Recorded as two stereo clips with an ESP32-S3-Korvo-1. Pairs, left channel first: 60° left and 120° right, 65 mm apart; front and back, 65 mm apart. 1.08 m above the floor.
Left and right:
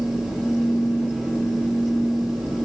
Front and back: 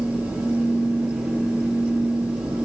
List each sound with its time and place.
Only background noise.